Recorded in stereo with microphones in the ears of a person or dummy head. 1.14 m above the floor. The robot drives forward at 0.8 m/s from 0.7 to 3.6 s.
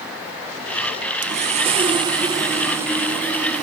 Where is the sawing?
40° right (ahead or behind), 0.7 m; by 3.6 s 10° right (ahead or behind), 2 m.